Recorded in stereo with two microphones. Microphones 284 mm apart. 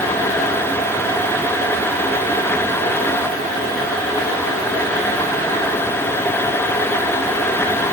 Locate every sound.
Only background noise.